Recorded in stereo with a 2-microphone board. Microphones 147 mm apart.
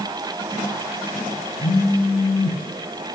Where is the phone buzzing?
70° left (ahead or behind), 3.5 m.